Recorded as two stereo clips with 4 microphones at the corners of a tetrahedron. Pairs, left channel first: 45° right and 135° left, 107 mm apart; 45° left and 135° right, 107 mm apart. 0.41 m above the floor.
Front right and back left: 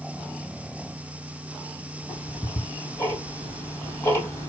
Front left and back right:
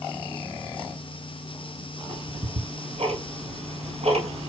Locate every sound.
2.1 s ticking: 110° right, 2 m